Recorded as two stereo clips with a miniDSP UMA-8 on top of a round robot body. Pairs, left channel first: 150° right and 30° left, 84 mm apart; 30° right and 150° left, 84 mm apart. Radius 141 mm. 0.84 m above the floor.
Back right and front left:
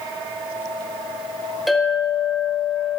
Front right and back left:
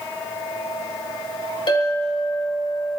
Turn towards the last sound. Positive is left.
turn(degrees=-60)